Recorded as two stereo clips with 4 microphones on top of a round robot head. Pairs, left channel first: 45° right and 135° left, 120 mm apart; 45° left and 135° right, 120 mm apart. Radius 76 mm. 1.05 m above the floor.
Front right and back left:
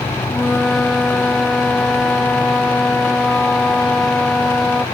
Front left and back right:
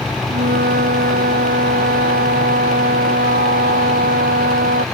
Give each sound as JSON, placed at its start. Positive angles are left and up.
{"t": 0.3, "sound": "a flute", "azimuth_deg": -135}